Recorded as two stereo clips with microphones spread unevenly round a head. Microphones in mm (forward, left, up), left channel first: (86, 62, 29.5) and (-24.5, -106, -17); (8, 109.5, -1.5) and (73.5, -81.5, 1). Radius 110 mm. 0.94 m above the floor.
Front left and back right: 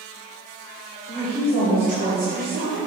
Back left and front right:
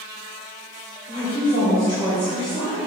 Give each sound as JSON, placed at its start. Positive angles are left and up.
{"t": 1.1, "sound": "a woman speaking", "azimuth_deg": 165, "distance_m": 2.5}